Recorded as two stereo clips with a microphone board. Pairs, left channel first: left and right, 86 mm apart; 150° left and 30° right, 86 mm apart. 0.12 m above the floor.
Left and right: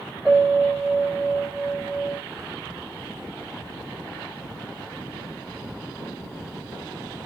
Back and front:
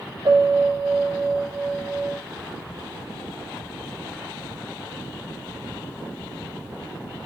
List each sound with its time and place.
0.2 s a piano: straight ahead, 5 m